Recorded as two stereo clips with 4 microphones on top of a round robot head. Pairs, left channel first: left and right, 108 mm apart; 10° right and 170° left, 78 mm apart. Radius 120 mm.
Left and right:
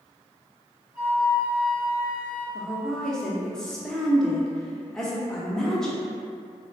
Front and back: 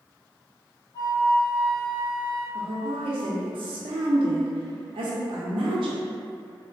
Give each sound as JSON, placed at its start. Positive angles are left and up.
{"t": 0.9, "sound": "a flute", "azimuth_deg": -30, "distance_m": 1.7}
{"t": 2.5, "sound": "a woman speaking", "azimuth_deg": 175, "distance_m": 0.6}